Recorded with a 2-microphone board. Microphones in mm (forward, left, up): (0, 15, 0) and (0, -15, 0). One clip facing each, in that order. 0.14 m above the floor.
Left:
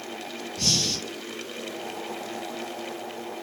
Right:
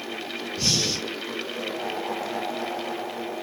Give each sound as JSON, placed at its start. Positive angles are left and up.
{"t": 0.6, "sound": "breathing", "side_deg": -15, "distance_m": 1.8}